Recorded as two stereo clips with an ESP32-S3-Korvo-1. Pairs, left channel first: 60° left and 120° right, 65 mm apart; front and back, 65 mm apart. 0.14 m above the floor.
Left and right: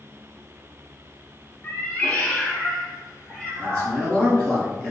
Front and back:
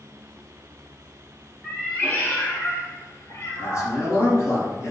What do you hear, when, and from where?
1.6 s a cat meowing: 75° left, 0.6 m; by 4.0 s 30° right, 1.3 m
3.6 s a man speaking: 10° right, 1.5 m